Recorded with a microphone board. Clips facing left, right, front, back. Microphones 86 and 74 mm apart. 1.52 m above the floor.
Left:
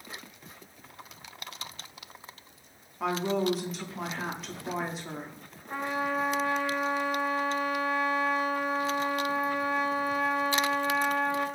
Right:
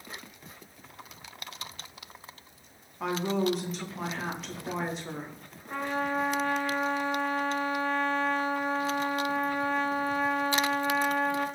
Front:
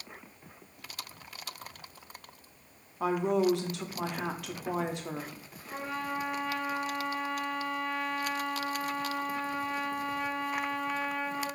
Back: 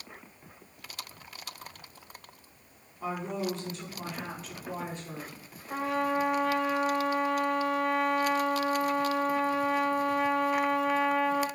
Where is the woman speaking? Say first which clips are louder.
Even, front 7 dB; straight ahead, 0.6 m.